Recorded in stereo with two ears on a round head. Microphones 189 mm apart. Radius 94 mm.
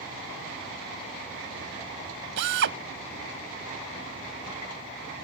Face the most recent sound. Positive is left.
turn(degrees=-60)  # may be behind; listen again after turning